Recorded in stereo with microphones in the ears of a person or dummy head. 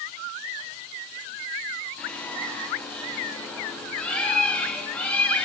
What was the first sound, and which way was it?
A bird, centre (ahead or behind).